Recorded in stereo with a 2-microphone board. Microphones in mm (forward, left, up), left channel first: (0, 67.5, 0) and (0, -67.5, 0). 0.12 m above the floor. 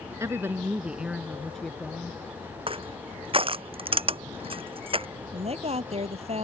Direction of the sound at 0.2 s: 20° right (ahead or behind).